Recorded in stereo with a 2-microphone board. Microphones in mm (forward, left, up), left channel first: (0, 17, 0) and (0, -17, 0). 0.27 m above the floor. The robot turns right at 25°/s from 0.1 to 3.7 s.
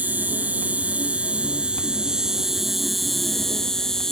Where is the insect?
75° right; by 4.1 s 15° left.